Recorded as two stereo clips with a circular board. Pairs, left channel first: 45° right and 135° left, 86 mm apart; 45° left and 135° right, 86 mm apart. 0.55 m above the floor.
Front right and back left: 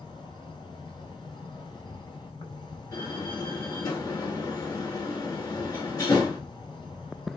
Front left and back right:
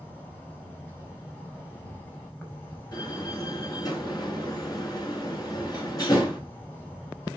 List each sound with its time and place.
0.0 s an insect: 20° right, 4 m
2.9 s a door slam: straight ahead, 5.5 m